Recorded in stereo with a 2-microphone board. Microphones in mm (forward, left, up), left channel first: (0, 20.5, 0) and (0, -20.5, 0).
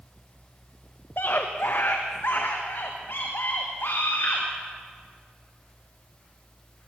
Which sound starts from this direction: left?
A scream, at 1.2 s.